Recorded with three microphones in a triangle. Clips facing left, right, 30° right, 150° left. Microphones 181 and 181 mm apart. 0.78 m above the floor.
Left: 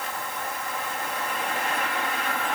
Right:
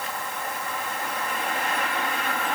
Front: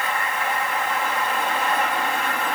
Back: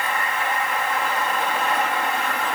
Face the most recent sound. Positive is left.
No sound to turn to.